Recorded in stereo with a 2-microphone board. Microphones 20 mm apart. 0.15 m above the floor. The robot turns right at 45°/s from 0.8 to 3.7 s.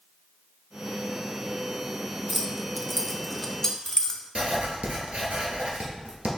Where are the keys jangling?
15° right (ahead or behind), 0.8 m; by 4.2 s 15° left (ahead or behind), 0.8 m.